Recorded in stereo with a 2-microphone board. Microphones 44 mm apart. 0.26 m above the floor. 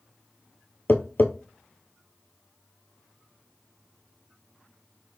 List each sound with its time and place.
0.9 s tapping: 50° left (ahead or behind), 0.8 m